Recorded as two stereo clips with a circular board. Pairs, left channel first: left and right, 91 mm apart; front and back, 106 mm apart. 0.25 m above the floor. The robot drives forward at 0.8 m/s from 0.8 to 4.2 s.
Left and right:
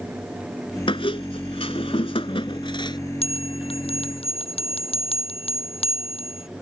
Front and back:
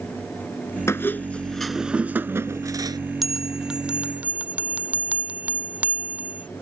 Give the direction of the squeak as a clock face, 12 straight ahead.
10 o'clock.